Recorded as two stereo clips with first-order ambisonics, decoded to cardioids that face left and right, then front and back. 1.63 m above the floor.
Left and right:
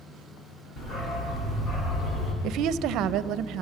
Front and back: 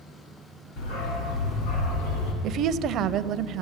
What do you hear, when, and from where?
0.8 s a dog barking: 25° left, 6.5 m; by 2.3 s 20° left, 5.5 m
2.4 s a woman speaking: 130° right, 0.7 m